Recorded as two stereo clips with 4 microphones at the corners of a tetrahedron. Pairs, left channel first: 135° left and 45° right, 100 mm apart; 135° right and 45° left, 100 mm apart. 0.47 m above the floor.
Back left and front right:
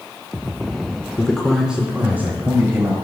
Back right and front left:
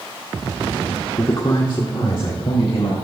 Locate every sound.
1.2 s a man speaking: 160° right, 0.9 m; by 3.0 s 110° right, 2 m